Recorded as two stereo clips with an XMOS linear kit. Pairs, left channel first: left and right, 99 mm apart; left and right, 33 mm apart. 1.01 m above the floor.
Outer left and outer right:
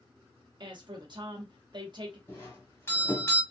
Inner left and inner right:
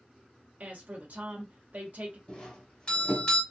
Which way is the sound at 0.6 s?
50° right (ahead or behind).